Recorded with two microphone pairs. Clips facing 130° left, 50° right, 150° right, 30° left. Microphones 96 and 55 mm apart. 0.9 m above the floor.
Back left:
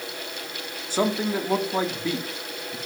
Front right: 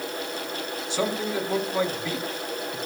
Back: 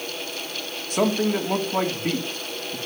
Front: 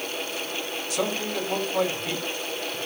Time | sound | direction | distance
0.9 | a man speaking | 175° left | 2 m